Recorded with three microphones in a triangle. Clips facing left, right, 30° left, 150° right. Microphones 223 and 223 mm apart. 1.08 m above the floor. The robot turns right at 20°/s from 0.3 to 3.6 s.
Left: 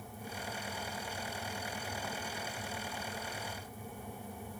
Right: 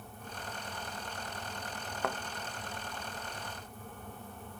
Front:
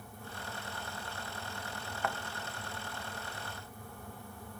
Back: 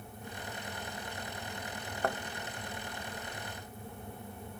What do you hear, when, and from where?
2.0 s a thud: 100° right